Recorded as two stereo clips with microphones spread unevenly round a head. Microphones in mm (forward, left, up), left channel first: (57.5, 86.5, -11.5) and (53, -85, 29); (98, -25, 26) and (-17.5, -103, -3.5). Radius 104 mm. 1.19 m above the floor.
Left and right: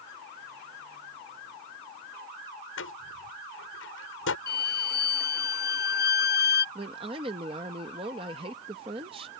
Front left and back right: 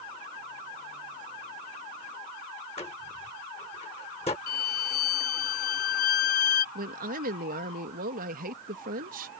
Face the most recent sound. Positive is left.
turn(degrees=-160)